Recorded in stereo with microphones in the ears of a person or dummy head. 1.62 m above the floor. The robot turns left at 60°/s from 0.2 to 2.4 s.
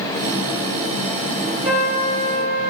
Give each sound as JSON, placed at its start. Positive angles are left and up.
{"t": 1.6, "sound": "a trumpet", "azimuth_deg": 0, "distance_m": 9.0}